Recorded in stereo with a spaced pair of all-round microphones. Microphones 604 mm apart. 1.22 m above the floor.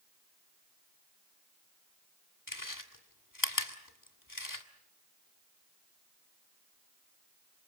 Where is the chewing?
30° left (ahead or behind), 1.7 m.